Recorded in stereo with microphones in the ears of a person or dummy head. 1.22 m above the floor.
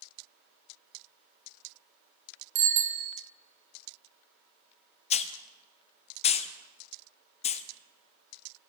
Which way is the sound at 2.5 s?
75° right (ahead or behind).